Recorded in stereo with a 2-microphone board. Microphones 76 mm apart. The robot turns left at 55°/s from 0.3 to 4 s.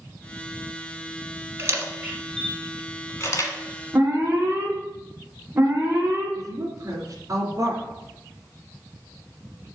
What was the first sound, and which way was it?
A camera shutter, 40° right (ahead or behind).